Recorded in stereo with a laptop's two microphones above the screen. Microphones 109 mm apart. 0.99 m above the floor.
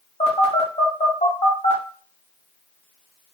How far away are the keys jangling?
I don't hear keys jangling.